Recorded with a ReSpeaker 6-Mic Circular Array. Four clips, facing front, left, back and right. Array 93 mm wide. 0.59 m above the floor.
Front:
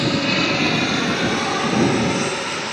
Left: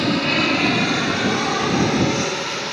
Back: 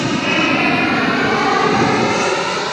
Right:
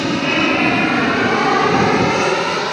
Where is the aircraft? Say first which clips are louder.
Right 3 dB, back 3 dB; 155° right; by 2.7 s 130° right.